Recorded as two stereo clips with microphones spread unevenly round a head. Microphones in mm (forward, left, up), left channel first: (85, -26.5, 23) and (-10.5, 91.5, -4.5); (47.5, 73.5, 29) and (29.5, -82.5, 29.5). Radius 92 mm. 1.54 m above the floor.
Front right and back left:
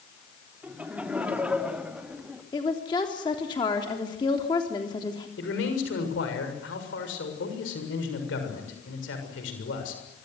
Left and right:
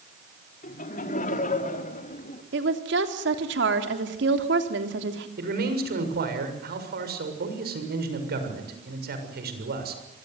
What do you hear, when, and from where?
0.6 s laughter: 45° left, 4.5 m
2.5 s a woman speaking: 120° right, 3.5 m
5.4 s a man speaking: 75° right, 7 m